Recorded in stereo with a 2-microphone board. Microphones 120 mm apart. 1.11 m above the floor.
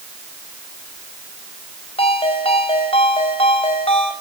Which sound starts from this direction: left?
A ringtone, at 2.0 s.